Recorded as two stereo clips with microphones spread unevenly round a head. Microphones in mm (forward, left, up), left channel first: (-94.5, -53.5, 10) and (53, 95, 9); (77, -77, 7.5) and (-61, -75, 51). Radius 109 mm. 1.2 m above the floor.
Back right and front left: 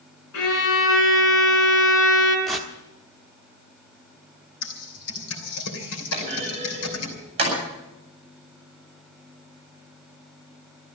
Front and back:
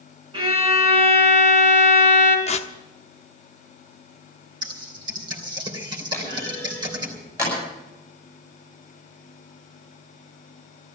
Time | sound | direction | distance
0.3 | a violin | 145° right | 4 m
2.5 | tearing paper | 45° right | 1.1 m
4.6 | typing on a keyboard | 130° right | 3 m
6.1 | a clunk | 105° left | 8 m